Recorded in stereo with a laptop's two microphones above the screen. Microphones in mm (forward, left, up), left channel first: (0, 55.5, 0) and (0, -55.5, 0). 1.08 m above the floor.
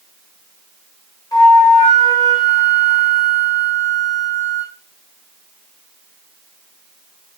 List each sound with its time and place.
1.3 s a flute: 35° left (ahead or behind), 1.2 m